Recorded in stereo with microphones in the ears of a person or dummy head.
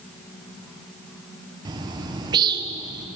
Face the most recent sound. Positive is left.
turn(degrees=-20)  # may be behind; listen again after turning